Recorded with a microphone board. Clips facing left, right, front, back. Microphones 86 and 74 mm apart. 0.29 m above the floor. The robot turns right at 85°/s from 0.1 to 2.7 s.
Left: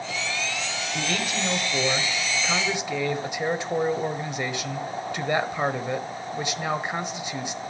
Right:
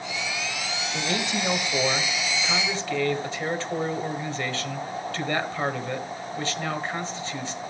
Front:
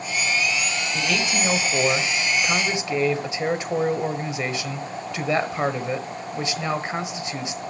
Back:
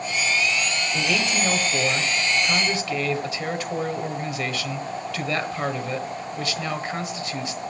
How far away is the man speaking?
About 1.3 m.